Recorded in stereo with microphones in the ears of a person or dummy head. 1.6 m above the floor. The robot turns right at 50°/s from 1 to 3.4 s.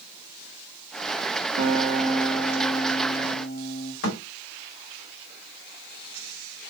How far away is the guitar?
About 1.9 m.